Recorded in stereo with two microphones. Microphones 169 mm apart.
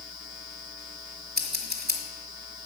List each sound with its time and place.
1.4 s scissors: 70° right (ahead or behind), 1.5 m